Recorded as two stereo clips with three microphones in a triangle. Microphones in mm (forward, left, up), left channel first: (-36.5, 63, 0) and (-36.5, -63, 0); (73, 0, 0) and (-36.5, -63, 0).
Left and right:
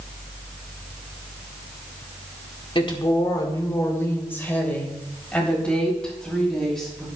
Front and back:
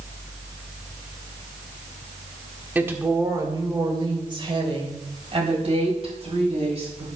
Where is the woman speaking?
135° left, 1.6 m; by 7.0 s 175° left, 5 m.